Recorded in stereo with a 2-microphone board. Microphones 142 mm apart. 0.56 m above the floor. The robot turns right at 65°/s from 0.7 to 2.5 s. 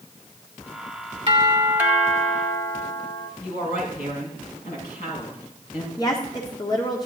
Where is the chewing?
I don't hear chewing.